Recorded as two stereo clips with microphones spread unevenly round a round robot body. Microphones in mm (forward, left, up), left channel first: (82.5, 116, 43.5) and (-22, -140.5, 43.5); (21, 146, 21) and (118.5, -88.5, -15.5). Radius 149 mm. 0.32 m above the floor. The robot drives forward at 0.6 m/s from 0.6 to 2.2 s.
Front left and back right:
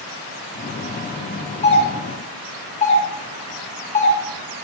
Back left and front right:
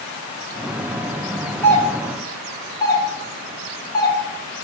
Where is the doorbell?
25° left, 2 m; by 4.2 s 35° left, 1.9 m.